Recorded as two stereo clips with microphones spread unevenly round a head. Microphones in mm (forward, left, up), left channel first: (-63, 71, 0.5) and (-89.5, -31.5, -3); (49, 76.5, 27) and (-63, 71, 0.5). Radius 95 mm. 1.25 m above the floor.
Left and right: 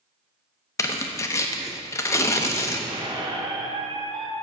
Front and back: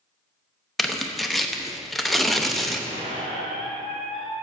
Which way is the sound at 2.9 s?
145° right.